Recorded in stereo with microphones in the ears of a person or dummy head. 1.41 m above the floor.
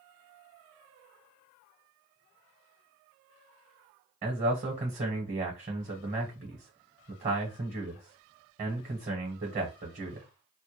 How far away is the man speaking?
About 1.0 m.